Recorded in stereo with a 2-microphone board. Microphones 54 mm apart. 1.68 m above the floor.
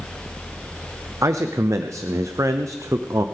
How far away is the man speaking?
About 0.6 m.